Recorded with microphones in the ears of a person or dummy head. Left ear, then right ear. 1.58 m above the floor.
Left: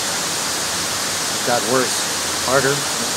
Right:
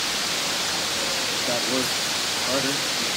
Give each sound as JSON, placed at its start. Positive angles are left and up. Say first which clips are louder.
{"t": 1.3, "sound": "a man speaking", "louder": "left 6 dB", "side_deg": 65, "distance_m": 0.8}